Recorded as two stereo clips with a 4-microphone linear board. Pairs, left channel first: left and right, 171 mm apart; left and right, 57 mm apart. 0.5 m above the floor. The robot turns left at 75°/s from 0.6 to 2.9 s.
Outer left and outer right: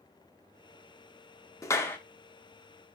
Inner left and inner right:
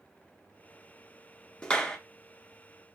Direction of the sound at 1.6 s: 20° left (ahead or behind).